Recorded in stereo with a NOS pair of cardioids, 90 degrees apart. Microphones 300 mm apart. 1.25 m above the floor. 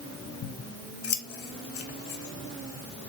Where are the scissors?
50° left, 1.1 m.